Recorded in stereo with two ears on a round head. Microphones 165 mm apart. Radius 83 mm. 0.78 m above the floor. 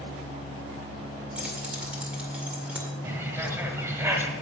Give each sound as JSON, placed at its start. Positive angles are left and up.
{"t": 1.4, "sound": "keys jangling", "side_deg": -5, "distance_m": 2.0}
{"t": 3.0, "sound": "a bird", "side_deg": -15, "distance_m": 1.6}